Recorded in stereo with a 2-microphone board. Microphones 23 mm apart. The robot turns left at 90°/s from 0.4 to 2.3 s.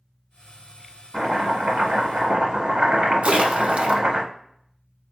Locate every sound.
1.1 s chopping: 25° right, 1.2 m; by 4.2 s 130° right, 1.2 m
3.2 s a splash: 65° right (ahead or behind), 0.6 m